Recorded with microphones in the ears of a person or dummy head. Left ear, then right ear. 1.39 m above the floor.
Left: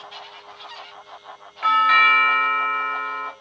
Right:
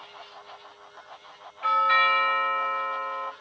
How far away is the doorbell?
About 1.0 m.